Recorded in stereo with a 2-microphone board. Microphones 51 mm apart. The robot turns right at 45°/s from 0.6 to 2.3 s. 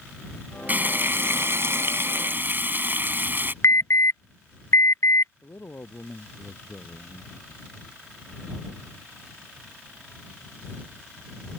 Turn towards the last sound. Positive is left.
turn(degrees=50)  # may be behind; listen again after turning